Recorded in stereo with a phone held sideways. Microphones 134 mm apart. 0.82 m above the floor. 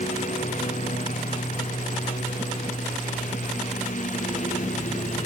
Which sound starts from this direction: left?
A lawn mower, at 0.0 s.